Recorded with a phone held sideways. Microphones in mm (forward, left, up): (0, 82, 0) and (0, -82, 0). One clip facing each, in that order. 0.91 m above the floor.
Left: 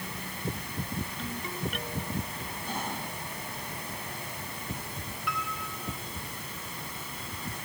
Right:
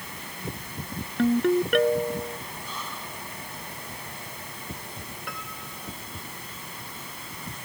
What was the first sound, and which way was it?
A ringtone, 70° right (ahead or behind).